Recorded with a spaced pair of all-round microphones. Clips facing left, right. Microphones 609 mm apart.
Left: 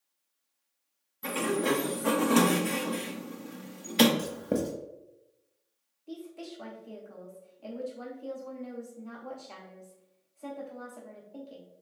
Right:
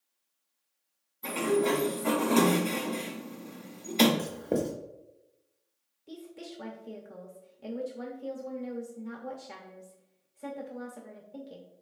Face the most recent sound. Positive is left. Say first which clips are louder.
# left 2 dB
turn(degrees=-45)  # may be behind; listen again after turning